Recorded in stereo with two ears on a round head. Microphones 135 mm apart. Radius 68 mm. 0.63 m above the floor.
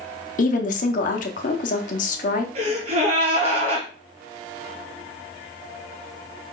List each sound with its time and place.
0.4 s a woman speaking: 50° left (ahead or behind), 0.8 m
2.5 s a gasp: 40° right (ahead or behind), 2.5 m